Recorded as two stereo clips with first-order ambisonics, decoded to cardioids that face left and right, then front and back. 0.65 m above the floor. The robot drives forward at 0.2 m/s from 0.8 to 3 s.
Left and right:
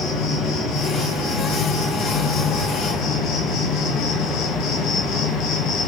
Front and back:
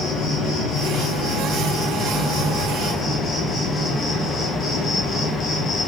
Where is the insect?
60° left, 1.4 m; by 5.9 s 75° left, 1.3 m.